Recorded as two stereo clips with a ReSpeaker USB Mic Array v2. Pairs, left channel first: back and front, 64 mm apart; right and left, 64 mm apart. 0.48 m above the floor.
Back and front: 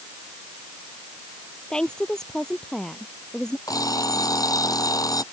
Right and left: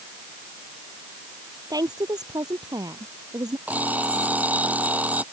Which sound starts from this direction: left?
A woman speaking, at 1.7 s.